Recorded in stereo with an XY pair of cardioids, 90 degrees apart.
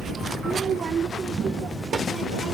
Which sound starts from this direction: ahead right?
A child speaking, at 0.4 s.